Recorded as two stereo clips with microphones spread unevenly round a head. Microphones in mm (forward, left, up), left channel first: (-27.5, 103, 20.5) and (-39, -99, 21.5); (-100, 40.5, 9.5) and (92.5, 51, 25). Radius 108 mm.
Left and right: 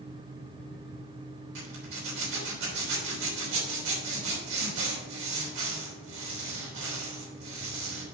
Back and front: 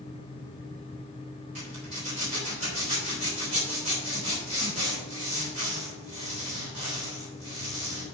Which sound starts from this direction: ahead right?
A zipper, at 1.6 s.